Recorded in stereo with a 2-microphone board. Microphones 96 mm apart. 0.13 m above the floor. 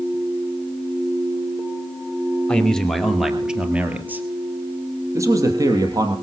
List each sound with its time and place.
2.5 s a man speaking: 10° left (ahead or behind), 2.5 m; by 6.1 s 40° right (ahead or behind), 4 m